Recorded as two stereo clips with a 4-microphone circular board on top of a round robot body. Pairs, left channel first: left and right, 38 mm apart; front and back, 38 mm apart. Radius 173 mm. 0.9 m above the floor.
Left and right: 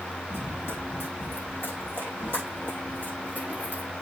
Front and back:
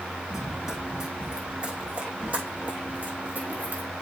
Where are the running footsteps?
100° left, 2.5 m; by 3.9 s 140° left, 3 m.